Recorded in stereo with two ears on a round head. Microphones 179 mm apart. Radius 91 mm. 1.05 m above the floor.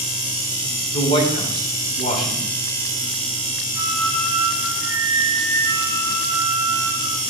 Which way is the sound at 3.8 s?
20° right (ahead or behind).